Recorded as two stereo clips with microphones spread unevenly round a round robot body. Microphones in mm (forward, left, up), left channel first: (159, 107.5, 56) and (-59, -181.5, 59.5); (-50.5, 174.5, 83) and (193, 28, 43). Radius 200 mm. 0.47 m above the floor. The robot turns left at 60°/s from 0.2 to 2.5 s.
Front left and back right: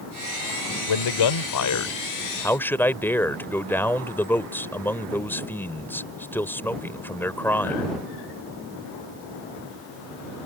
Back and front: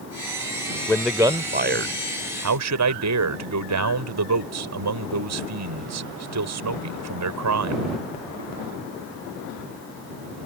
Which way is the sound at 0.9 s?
65° left.